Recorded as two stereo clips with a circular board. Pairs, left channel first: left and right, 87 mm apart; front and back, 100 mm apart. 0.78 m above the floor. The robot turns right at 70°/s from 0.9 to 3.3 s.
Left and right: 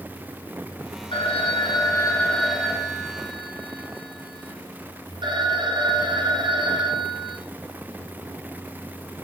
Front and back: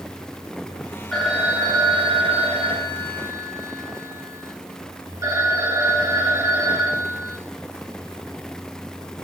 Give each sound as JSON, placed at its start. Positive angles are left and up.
{"t": 1.1, "sound": "a phone ringing", "azimuth_deg": 85, "distance_m": 3.0}